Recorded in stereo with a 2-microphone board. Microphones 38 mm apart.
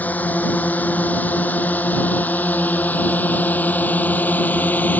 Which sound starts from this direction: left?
A drone, at 0.0 s.